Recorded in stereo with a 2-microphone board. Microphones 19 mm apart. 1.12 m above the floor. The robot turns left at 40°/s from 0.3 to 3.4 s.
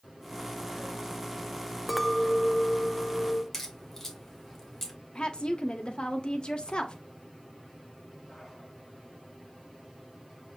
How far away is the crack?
About 1.4 m.